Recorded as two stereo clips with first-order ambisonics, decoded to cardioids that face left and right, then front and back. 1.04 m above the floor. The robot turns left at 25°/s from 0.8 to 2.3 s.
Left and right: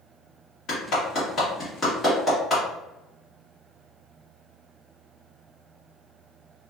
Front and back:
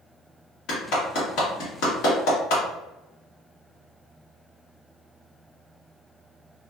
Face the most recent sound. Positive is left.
turn(degrees=0)